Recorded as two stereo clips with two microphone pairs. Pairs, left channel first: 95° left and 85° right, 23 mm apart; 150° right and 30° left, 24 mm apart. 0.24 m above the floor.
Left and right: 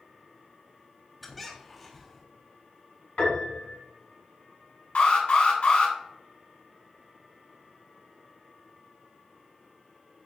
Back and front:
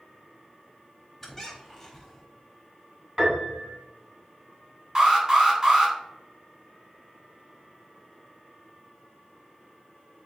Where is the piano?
125° left, 1.6 m.